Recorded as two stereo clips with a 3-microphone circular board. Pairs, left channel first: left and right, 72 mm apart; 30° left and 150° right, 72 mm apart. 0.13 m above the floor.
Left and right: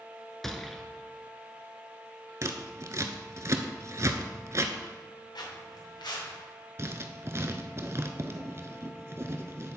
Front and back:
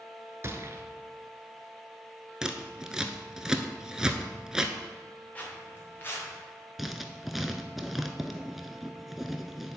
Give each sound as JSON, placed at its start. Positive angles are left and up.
{"t": 0.4, "sound": "a gunshot", "azimuth_deg": 175, "distance_m": 0.7}
{"t": 2.4, "sound": "scissors", "azimuth_deg": -70, "distance_m": 0.6}
{"t": 5.3, "sound": "footsteps", "azimuth_deg": 100, "distance_m": 2.5}
{"t": 6.8, "sound": "writing", "azimuth_deg": -60, "distance_m": 0.6}